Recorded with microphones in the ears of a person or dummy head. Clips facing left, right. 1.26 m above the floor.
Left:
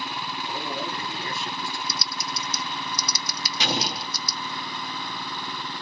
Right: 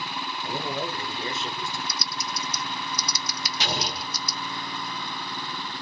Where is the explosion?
55° left (ahead or behind), 0.9 m.